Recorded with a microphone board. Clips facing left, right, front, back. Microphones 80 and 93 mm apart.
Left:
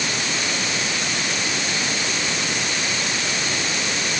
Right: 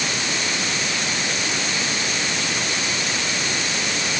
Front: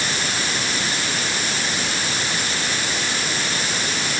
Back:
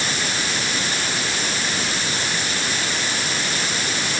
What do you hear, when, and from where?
Only background noise.